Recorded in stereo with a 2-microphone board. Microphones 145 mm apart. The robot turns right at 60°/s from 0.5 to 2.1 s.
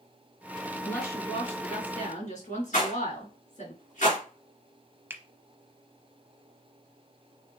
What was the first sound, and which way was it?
A woman speaking, 10° left.